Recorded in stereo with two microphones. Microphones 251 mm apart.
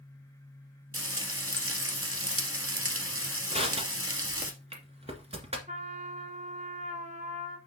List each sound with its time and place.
0.9 s frying: 60° right (ahead or behind), 1.6 m
3.5 s crushing: 25° right (ahead or behind), 1.8 m
5.7 s a trumpet: 30° right (ahead or behind), 1.8 m